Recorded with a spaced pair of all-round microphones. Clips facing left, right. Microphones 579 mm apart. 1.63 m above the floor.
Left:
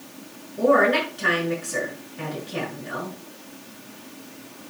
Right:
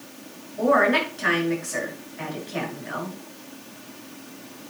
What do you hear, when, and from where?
0.6 s a woman speaking: 60° left (ahead or behind), 6.5 m